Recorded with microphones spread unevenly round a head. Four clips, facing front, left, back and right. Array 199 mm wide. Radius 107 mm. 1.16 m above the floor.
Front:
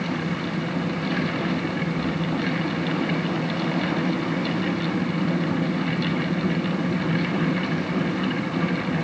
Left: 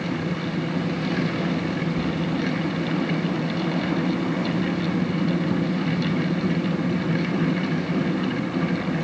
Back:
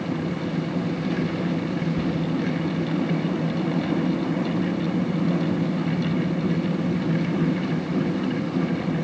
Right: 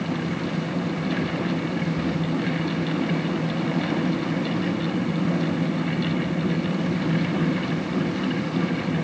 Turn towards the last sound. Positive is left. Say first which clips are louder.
# even, back 1 dB
turn(degrees=180)